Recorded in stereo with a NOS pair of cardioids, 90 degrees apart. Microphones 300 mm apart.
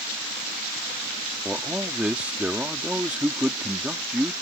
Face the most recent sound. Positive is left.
turn(degrees=-5)